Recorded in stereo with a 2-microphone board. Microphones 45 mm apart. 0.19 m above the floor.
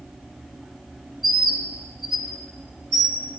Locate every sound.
1.2 s a bird: centre (ahead or behind), 0.8 m